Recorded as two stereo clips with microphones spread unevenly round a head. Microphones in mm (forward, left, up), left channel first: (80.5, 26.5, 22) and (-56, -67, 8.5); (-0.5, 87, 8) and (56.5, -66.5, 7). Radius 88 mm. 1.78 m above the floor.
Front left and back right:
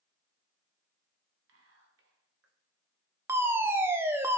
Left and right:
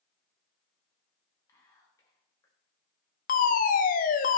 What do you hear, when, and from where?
1.5 s whispering: 175° right, 1.3 m
3.3 s a fire alarm: 140° left, 0.6 m